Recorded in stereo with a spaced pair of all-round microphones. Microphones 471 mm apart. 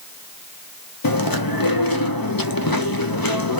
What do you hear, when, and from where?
1.0 s chewing: 45° left (ahead or behind), 0.5 m